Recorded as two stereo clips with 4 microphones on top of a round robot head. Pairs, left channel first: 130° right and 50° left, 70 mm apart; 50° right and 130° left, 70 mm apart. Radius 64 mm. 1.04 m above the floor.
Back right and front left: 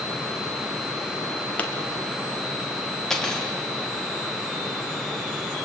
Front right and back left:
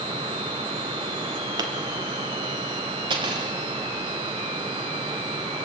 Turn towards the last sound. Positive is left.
turn(degrees=145)